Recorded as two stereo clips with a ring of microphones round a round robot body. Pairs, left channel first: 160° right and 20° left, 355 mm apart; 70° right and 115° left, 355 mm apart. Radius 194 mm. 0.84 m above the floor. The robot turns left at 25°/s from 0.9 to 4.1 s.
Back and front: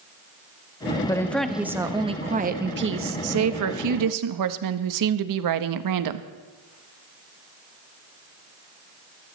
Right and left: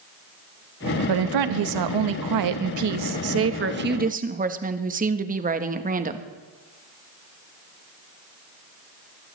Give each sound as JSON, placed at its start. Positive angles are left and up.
{"t": 1.1, "sound": "a woman speaking", "azimuth_deg": 120, "distance_m": 1.1}